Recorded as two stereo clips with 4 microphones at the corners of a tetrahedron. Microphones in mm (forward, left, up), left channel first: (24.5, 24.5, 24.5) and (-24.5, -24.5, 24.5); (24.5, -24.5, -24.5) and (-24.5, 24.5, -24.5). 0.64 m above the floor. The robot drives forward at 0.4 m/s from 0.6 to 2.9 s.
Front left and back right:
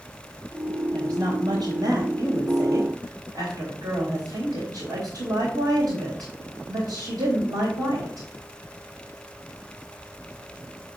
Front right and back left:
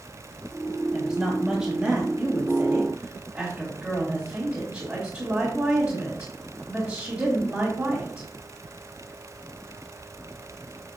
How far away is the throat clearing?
No throat clearing in this recording.